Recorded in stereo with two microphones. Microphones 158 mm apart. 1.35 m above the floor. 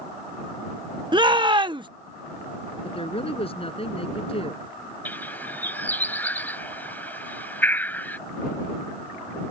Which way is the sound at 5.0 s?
10° left (ahead or behind).